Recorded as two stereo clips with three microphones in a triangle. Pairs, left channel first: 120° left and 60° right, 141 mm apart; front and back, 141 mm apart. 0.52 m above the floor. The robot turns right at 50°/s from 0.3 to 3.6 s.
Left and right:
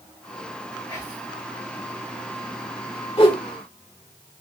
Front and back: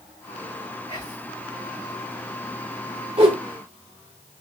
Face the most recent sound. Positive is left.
turn(degrees=175)